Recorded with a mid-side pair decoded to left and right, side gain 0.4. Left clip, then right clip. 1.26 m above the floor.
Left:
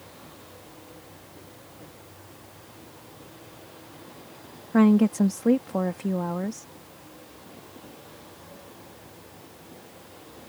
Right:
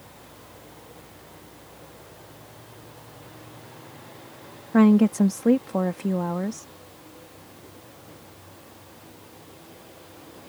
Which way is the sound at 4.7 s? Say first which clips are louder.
Right 2 dB; 10° right.